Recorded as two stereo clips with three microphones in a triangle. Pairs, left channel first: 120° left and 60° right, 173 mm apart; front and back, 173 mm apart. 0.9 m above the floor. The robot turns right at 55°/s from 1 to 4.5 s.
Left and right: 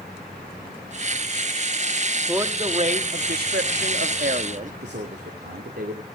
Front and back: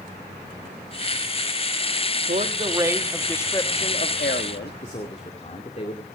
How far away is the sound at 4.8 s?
About 2.5 m.